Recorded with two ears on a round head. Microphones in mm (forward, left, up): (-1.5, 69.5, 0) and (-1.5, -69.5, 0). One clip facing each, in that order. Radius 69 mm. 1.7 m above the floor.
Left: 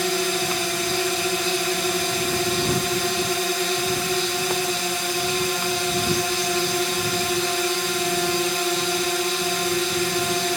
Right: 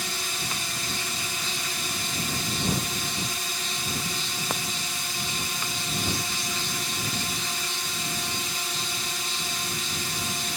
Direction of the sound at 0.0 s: 60° left (ahead or behind).